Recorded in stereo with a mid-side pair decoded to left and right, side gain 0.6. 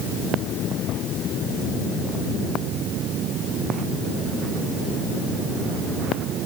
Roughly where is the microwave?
No microwave in this recording.